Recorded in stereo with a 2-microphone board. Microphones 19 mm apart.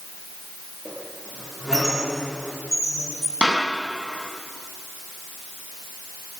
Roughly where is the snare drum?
Right.